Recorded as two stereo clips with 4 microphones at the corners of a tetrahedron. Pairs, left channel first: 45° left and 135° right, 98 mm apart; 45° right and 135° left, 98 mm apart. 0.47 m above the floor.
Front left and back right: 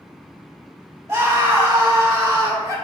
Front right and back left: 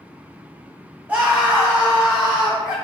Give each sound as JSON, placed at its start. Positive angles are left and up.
{"t": 1.1, "sound": "a scream", "azimuth_deg": -170, "distance_m": 1.6}